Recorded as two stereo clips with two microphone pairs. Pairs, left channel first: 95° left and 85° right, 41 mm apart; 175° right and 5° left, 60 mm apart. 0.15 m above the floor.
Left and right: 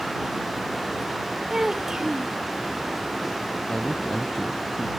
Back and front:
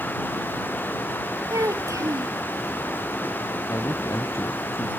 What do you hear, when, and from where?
1.5 s a child speaking: 10° right
3.7 s a man speaking: 160° left